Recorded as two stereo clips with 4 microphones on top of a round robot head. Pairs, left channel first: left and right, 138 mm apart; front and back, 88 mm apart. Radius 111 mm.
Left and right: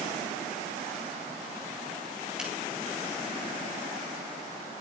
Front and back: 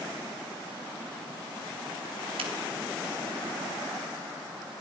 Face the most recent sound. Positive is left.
turn(degrees=-175)